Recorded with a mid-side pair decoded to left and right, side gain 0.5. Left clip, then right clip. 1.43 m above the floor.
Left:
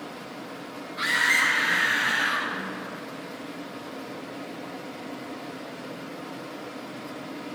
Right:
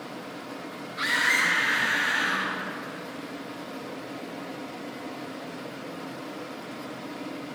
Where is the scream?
10° right, 1.1 m; by 2.5 s 20° left, 1.6 m.